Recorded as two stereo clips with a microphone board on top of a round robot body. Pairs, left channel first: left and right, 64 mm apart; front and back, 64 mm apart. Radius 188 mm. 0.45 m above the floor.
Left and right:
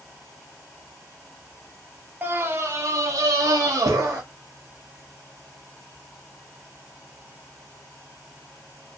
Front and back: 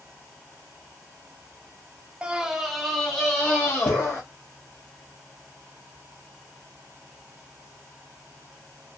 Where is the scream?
120° right, 0.8 m; by 4.2 s 65° right, 1.4 m.